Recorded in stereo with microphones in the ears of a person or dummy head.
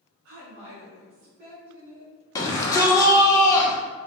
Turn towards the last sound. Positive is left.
turn(degrees=20)  # may be behind; listen again after turning